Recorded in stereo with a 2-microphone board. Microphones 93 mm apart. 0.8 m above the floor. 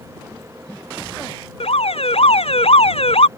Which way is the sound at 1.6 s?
80° left.